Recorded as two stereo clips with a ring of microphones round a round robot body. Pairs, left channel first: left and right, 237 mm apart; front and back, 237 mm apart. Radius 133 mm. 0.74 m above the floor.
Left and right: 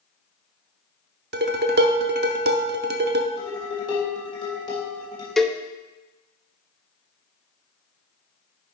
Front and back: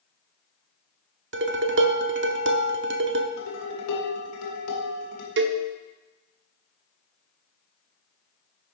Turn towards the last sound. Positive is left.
turn(degrees=180)